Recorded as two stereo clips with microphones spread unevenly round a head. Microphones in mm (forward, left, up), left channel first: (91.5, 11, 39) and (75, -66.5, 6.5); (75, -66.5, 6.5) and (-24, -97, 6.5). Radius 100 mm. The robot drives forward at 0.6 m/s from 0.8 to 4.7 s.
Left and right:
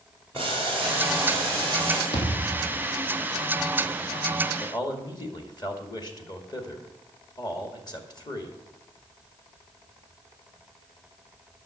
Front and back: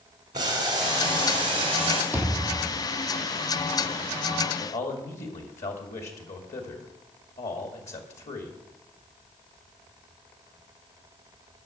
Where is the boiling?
155° left, 2 m; by 2.0 s 160° left, 3 m.